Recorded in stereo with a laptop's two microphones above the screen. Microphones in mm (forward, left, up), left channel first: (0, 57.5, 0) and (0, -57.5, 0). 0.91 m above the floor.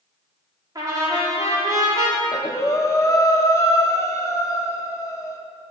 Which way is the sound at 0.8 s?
35° right (ahead or behind).